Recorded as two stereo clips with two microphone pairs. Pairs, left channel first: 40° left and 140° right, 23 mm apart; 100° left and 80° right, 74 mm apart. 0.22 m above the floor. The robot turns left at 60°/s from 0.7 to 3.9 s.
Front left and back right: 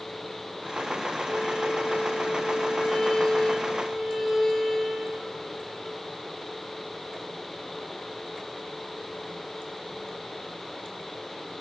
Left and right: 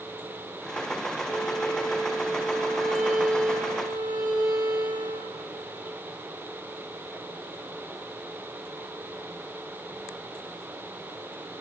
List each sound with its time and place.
1.2 s a violin: 110° left, 9 m; by 6.0 s 50° right, 9 m